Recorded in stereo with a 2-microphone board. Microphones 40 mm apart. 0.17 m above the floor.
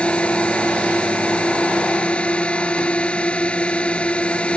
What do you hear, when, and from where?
0.0 s a drone: 25° left (ahead or behind)